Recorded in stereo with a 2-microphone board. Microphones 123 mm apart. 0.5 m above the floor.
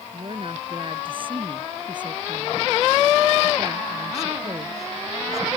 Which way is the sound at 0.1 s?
45° right (ahead or behind).